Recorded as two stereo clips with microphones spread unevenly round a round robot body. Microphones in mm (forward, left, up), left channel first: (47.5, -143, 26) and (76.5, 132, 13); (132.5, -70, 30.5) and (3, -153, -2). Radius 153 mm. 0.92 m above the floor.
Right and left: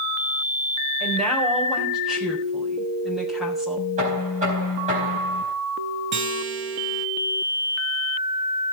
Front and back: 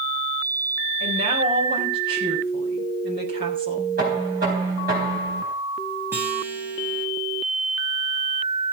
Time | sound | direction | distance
1.0 | a woman speaking | 175° left | 4.5 m
4.0 | knocking | 150° left | 4 m
6.1 | a guitar | 125° left | 0.9 m